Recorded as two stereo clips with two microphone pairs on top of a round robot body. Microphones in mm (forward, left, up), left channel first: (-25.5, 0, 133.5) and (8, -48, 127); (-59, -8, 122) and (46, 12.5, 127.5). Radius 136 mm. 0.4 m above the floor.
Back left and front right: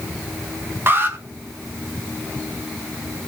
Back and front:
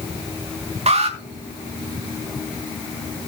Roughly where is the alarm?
Ahead.